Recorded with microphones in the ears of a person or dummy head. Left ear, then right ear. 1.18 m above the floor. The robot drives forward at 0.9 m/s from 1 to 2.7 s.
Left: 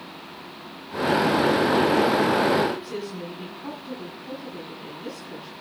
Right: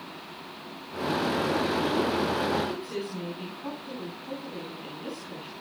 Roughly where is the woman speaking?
Centre.